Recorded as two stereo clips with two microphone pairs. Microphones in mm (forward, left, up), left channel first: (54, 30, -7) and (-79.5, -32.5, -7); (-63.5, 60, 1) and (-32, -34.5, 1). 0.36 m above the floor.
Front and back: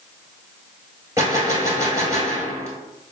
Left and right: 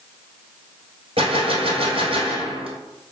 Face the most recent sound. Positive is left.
turn(degrees=-85)